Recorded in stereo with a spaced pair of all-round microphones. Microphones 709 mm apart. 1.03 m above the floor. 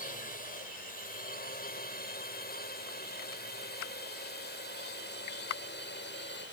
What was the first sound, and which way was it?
A drone, 10° left (ahead or behind).